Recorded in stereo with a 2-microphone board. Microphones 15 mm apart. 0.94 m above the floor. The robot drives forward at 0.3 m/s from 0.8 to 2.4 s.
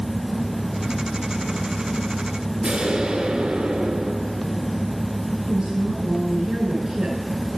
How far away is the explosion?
About 2 m.